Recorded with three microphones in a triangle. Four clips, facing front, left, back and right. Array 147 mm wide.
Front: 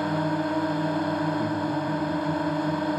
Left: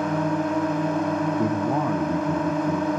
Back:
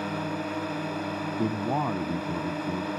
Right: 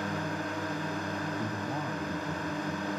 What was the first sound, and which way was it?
A drone, 65° left.